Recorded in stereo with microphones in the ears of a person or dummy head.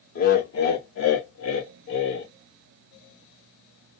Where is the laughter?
55° left (ahead or behind), 1.1 m; by 2.3 s 75° left (ahead or behind), 1.3 m.